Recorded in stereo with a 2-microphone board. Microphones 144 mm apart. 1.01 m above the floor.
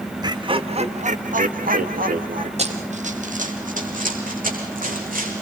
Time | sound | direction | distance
0.2 | laughter | 30° right (ahead or behind) | 1.5 m
2.6 | running footsteps | 50° right (ahead or behind) | 2 m